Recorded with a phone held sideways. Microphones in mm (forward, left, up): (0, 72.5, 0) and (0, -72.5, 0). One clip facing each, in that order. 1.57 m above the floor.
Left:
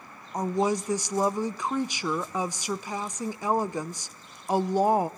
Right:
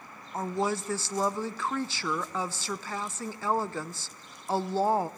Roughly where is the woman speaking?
Centre.